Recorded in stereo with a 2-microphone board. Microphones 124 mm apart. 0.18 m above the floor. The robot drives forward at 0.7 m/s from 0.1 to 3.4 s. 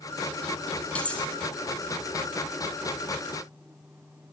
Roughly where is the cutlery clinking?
Centre.